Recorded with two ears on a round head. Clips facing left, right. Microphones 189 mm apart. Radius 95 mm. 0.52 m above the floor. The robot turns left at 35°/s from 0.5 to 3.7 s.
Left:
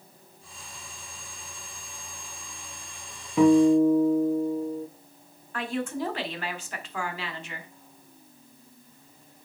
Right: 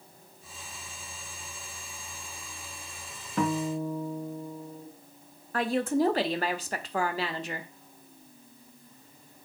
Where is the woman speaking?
35° right (ahead or behind), 1.2 m.